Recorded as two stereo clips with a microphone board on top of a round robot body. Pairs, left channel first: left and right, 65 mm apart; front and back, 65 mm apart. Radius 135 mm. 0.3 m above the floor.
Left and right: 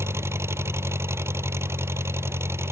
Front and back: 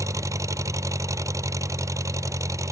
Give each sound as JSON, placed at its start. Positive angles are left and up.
{"t": 0.0, "sound": "an engine running", "azimuth_deg": -140}